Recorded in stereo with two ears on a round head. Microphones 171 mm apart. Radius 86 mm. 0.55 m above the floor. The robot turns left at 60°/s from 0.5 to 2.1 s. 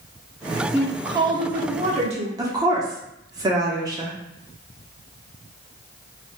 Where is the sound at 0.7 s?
15° right, 0.8 m; by 2.3 s 95° right, 0.8 m.